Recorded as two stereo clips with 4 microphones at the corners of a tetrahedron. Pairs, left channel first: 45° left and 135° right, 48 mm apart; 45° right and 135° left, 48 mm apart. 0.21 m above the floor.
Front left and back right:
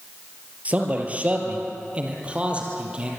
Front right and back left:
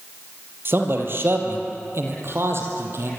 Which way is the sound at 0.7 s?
170° left.